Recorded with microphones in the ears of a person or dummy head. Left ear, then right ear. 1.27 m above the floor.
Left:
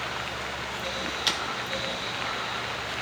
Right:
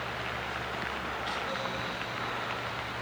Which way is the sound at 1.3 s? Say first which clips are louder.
Left 10 dB; 40° left (ahead or behind).